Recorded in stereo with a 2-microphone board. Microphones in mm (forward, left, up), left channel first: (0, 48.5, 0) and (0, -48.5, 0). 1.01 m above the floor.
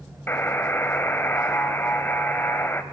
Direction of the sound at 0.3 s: 25° left (ahead or behind).